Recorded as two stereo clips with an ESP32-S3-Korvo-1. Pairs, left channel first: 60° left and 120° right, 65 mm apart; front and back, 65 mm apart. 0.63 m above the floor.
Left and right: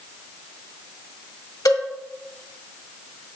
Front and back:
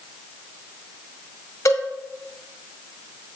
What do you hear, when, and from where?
1.6 s a cowbell: 35° left, 1.5 m